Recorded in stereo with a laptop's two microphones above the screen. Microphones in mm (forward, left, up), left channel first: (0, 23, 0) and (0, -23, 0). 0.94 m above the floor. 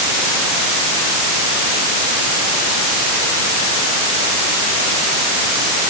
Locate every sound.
Only background noise.